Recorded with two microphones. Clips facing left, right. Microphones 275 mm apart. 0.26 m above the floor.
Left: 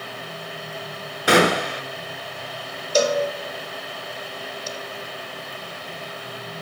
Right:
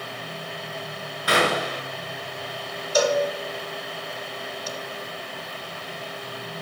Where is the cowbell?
30° left (ahead or behind), 0.9 m.